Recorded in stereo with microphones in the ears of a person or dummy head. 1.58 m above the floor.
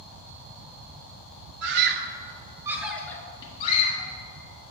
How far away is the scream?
About 0.8 m.